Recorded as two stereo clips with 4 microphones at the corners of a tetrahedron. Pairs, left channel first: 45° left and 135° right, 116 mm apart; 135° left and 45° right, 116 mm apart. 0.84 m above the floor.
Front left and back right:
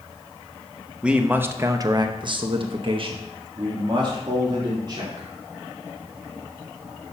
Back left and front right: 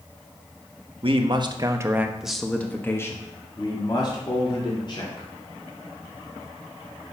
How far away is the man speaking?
About 1.1 m.